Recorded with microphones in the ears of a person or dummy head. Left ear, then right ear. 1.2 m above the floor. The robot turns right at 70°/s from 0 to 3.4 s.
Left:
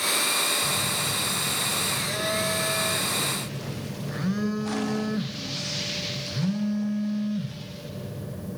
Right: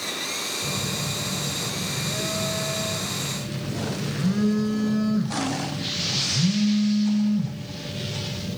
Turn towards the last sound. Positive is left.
turn(degrees=145)